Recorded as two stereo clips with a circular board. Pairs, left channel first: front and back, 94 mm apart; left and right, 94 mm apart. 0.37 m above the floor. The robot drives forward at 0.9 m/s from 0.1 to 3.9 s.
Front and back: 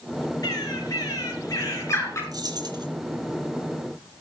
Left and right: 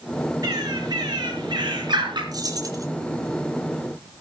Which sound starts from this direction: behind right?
Keys jangling, at 2.3 s.